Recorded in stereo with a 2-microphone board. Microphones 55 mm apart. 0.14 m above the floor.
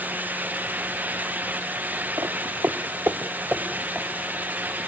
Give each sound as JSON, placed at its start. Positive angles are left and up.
{"t": 2.2, "sound": "footsteps", "side_deg": -75, "distance_m": 0.6}